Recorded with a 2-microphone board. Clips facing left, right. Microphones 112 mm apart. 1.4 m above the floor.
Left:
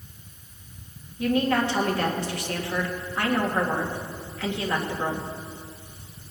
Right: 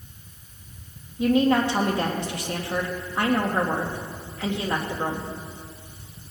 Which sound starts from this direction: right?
A woman speaking, at 1.2 s.